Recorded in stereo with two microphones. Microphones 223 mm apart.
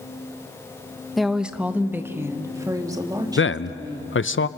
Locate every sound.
1.2 s a woman speaking: centre (ahead or behind), 1.1 m; by 4.2 s 20° right (ahead or behind), 2.5 m
3.4 s a man speaking: 65° left (ahead or behind), 0.7 m